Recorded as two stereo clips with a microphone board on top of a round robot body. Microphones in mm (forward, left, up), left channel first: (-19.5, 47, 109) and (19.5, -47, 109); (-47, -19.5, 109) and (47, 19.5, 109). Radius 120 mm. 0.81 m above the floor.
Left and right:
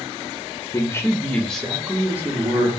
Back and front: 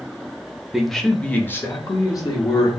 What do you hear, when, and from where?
0.7 s a man speaking: 105° left, 1.1 m; by 2.7 s 125° right, 1.4 m